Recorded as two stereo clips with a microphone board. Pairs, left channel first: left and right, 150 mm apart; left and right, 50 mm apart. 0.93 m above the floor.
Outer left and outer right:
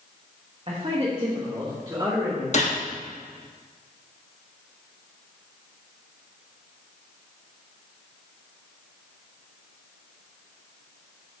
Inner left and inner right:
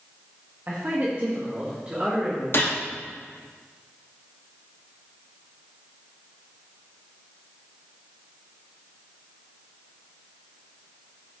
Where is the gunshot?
50° left (ahead or behind), 1.4 m.